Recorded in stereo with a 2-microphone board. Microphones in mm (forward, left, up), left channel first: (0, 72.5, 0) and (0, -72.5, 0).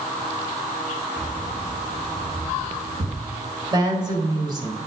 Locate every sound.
1.2 s keys jangling: 55° right (ahead or behind), 3.5 m; by 3.2 s 60° right (ahead or behind), 4.5 m
3.7 s a woman speaking: 30° right (ahead or behind), 2 m